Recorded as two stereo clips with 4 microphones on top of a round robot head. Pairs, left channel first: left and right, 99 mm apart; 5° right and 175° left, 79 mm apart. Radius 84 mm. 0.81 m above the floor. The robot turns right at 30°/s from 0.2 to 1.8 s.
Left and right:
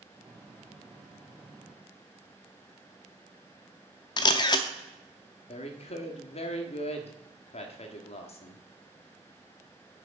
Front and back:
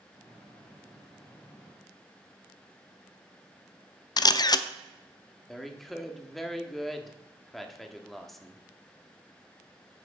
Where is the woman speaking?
85° left, 1.6 m.